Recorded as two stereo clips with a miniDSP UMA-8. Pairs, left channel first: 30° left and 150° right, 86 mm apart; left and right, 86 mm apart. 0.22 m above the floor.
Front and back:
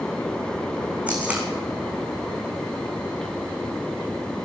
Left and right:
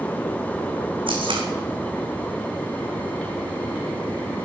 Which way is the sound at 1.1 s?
75° right.